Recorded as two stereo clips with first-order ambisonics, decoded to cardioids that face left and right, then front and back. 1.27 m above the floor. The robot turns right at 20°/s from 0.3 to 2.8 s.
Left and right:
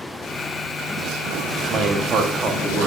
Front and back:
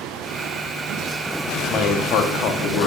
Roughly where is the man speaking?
Ahead right.